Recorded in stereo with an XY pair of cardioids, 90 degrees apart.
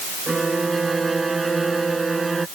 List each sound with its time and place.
0.3 s a violin: 25° right